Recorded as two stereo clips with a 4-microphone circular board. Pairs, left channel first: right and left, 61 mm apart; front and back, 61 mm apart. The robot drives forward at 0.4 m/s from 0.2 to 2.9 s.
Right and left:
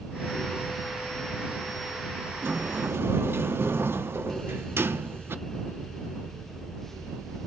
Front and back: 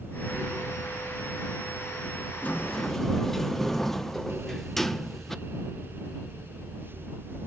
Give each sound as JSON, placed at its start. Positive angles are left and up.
{"t": 2.4, "sound": "a sliding door", "azimuth_deg": 55, "distance_m": 0.5}